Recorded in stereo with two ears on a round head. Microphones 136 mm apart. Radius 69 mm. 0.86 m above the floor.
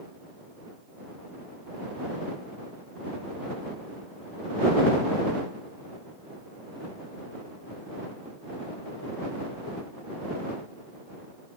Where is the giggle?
No giggle in this recording.